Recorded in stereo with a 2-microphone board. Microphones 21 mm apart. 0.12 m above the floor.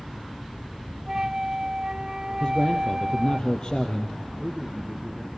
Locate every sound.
1.1 s a flute: 30° right (ahead or behind), 0.7 m
2.4 s a man speaking: 45° left (ahead or behind), 2.5 m
4.4 s a man speaking: 10° right (ahead or behind), 1.8 m